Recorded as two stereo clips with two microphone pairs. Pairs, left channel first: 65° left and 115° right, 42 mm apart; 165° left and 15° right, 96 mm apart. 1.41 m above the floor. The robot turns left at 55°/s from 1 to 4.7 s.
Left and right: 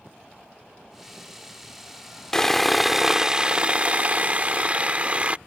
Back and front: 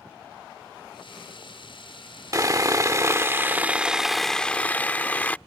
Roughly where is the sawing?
Ahead.